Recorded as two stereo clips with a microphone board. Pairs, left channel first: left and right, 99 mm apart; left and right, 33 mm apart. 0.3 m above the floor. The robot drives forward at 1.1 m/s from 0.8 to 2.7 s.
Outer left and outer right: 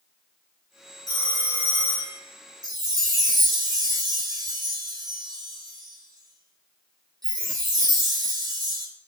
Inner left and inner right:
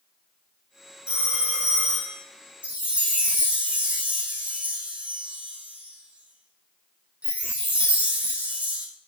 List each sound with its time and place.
1.1 s a phone ringing: 40° right (ahead or behind), 4.5 m; by 2.2 s 30° right (ahead or behind), 5.5 m
2.6 s a chime: 45° right (ahead or behind), 3 m